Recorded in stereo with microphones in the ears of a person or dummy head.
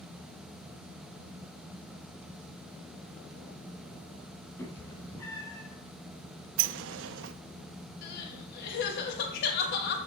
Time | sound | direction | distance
4.6 | a cat meowing | 15° left (ahead or behind) | 5 m
6.6 | a sliding door | 65° right (ahead or behind) | 0.7 m
8.0 | crying | 60° left (ahead or behind) | 2.5 m